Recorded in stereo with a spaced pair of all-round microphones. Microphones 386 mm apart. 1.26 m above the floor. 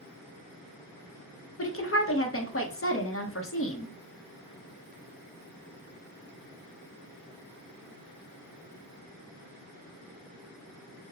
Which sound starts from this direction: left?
A woman speaking, at 1.6 s.